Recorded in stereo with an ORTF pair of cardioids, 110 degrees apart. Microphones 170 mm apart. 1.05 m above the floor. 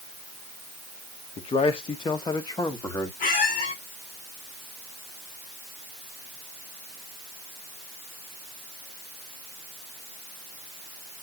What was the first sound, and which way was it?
A man speaking, 40° left.